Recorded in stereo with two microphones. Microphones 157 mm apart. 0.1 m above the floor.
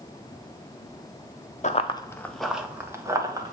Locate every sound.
1.6 s running footsteps: 50° left (ahead or behind), 0.7 m; by 3.5 s 25° right (ahead or behind), 1.7 m